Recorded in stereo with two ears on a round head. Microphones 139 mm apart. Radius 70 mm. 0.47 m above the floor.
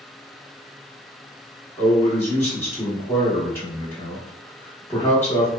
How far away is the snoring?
I don't hear snoring.